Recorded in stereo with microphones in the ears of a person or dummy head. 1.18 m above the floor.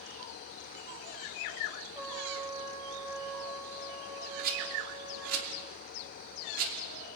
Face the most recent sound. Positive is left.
turn(degrees=-55)  # may be behind; listen again after turning